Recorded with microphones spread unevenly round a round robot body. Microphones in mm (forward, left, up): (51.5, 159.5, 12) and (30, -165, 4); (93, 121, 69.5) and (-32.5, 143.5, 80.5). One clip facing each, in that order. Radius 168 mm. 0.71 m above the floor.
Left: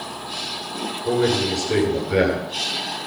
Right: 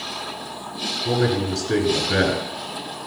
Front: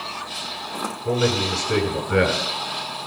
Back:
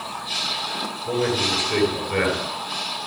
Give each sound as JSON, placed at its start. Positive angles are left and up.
{"t": 1.1, "sound": "a man speaking", "azimuth_deg": -30, "distance_m": 8.5}